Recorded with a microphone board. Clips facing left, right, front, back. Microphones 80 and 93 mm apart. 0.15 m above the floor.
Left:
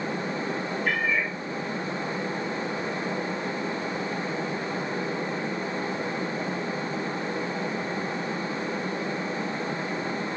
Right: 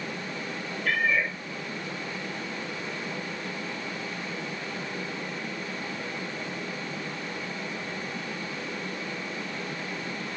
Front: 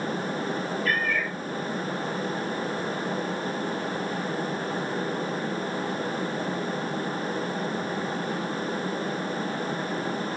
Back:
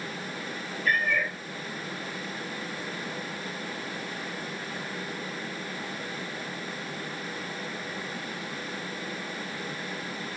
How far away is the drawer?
No drawer in this recording.